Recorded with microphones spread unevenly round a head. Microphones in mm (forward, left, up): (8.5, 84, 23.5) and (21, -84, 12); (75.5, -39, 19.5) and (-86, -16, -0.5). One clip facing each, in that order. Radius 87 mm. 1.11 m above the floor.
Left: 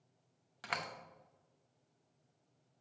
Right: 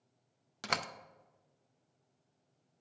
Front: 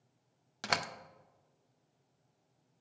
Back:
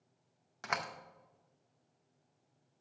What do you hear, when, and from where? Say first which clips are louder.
0.6 s a door slam: right 4 dB, front 3 dB; 50° right, 0.5 m